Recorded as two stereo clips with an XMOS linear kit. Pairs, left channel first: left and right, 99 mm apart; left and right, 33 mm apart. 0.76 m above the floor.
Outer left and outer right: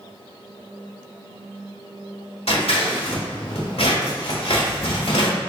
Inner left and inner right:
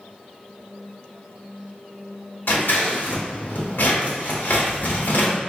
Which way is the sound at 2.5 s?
85° left.